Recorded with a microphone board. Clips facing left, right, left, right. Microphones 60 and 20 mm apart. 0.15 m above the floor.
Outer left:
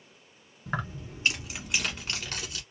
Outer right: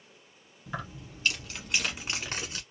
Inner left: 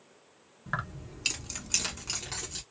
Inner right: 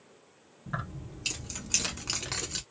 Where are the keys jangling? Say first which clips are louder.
Outer left 5 dB, inner left 3 dB; 45° left (ahead or behind), 1.3 m; by 2.6 s 35° right (ahead or behind), 1.2 m.